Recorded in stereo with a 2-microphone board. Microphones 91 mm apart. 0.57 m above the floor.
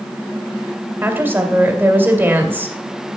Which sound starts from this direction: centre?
A woman speaking, at 1.0 s.